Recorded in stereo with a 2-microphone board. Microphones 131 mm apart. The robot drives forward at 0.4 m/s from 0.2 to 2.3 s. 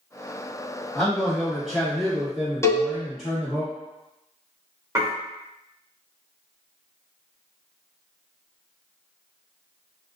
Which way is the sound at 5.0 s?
25° right (ahead or behind).